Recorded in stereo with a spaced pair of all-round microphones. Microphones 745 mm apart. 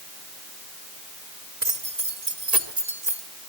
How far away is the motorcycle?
No motorcycle in this recording.